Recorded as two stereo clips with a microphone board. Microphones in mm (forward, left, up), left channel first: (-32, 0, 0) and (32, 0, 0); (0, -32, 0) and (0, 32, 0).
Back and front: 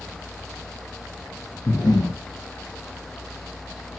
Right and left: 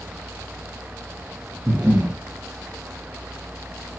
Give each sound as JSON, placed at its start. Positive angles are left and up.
{"t": 1.7, "sound": "breathing", "azimuth_deg": 155, "distance_m": 0.9}